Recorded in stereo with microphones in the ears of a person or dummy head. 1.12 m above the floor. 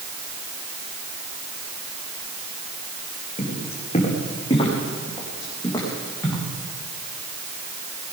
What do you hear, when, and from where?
3.4 s footsteps: 35° left (ahead or behind), 5 m; by 6.4 s 10° left (ahead or behind), 6.5 m